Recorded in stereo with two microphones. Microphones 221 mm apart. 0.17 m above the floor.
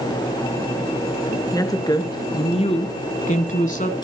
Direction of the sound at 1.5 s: 15° left (ahead or behind).